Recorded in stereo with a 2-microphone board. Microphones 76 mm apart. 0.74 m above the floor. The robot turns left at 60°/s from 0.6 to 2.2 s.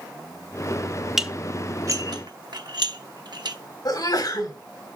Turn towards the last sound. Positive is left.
turn(degrees=60)  # may be behind; listen again after turning